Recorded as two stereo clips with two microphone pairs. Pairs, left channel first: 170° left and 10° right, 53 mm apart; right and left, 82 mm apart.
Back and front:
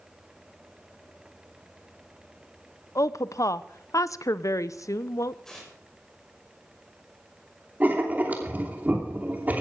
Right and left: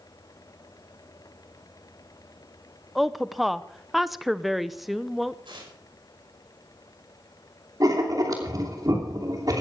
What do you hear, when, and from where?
3.0 s a woman speaking: 175° left, 0.6 m
5.5 s tearing paper: 90° left, 5.5 m
7.8 s writing: 45° left, 3 m